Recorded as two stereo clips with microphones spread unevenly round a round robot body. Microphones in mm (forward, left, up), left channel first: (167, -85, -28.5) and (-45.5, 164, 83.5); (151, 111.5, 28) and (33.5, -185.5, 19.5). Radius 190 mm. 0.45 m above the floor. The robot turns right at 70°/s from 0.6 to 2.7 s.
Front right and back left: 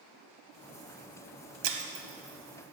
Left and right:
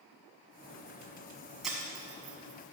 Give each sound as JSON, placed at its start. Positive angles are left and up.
{"t": 1.6, "sound": "breaking glass", "azimuth_deg": 160, "distance_m": 1.3}